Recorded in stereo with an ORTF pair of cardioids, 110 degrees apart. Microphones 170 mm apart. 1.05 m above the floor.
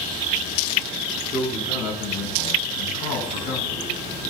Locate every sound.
1.3 s a man speaking: 65° left, 8 m; by 4.3 s 40° left, 8 m